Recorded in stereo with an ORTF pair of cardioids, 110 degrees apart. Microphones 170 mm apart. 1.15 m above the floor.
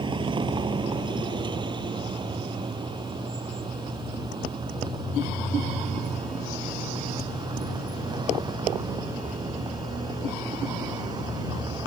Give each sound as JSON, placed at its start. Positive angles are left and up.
{"t": 0.0, "sound": "a vehicle", "azimuth_deg": -30}